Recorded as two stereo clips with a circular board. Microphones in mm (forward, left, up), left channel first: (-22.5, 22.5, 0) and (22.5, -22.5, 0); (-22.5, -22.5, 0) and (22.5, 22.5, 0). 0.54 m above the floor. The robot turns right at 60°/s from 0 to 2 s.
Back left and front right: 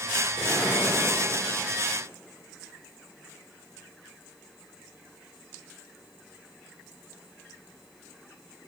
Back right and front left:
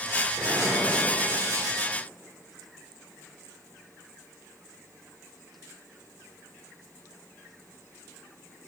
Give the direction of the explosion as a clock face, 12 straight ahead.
8 o'clock.